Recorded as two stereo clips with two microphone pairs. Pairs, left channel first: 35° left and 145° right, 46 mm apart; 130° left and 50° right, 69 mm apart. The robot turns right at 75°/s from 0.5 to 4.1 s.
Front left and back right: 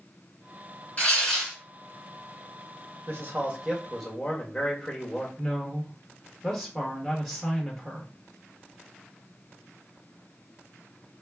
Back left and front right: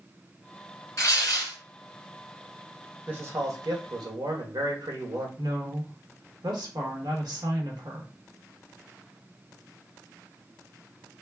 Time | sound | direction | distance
1.0 | tearing paper | 90° left | 1.8 m
3.1 | a man speaking | 115° right | 1.2 m
5.4 | a woman speaking | 55° right | 1.5 m